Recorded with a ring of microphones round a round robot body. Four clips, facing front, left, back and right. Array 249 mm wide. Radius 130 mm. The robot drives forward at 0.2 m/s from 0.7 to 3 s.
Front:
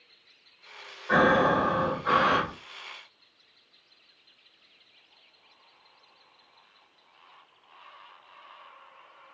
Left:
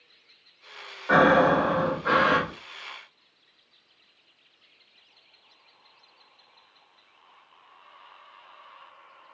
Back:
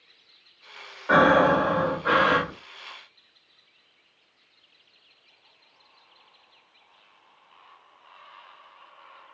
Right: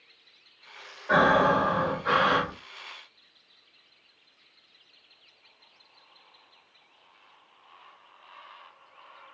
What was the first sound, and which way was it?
Breathing, 145° left.